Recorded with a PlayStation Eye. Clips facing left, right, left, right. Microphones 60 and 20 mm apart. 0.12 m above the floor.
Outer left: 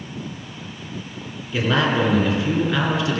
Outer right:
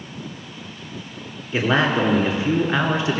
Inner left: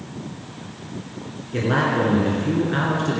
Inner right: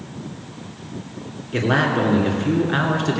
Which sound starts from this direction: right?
A man speaking, at 1.5 s.